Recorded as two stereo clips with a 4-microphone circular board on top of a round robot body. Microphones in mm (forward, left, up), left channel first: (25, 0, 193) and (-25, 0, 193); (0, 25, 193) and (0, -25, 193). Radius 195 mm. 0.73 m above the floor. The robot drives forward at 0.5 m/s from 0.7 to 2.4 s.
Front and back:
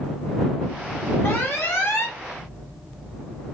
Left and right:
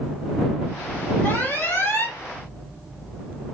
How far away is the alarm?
About 4.5 m.